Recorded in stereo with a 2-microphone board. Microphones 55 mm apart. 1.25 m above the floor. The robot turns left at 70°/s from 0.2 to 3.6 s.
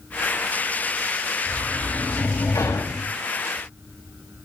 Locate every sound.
1.5 s a sliding door: 170° right, 6.5 m; by 3.1 s 75° left, 6.5 m